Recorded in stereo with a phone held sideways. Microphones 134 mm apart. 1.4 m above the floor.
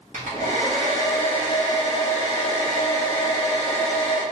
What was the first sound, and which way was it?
A hair dryer, 70° right (ahead or behind).